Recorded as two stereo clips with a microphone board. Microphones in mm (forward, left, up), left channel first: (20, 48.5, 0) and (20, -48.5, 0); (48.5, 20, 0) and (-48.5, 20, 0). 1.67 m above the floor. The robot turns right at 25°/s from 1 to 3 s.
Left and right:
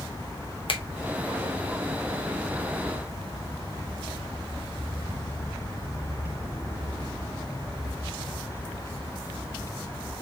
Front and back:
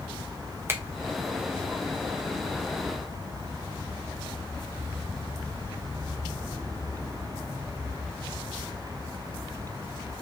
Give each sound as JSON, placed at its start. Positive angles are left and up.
{"t": 0.7, "sound": "a finger snap", "azimuth_deg": 115, "distance_m": 0.8}